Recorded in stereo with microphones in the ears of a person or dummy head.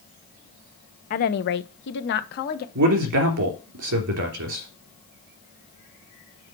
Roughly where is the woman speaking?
Left.